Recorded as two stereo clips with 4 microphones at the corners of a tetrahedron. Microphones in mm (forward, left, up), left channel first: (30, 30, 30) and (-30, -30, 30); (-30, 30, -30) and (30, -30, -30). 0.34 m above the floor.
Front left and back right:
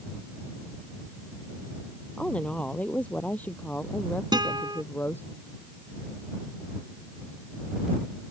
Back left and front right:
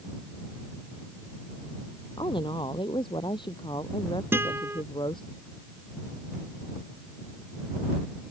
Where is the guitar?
105° right.